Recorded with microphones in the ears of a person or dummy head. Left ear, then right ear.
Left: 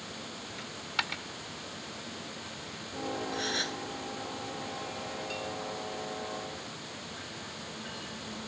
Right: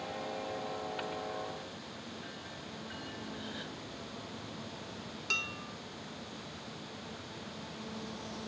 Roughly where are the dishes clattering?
Right.